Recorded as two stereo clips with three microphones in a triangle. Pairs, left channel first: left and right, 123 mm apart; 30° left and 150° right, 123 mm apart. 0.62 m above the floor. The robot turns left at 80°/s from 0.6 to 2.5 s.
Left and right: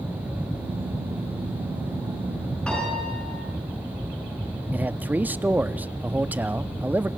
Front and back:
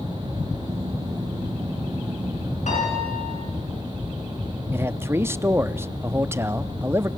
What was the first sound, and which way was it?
A piano, 10° left.